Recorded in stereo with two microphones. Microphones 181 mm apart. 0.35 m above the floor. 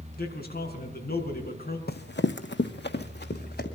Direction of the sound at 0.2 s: 60° left (ahead or behind).